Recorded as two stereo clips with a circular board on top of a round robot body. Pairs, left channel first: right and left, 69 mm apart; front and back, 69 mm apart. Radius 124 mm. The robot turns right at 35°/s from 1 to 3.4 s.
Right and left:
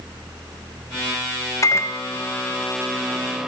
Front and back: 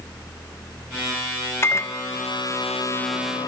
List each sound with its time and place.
1.6 s a microwave: 50° right, 0.5 m; by 3.5 s 10° left, 0.5 m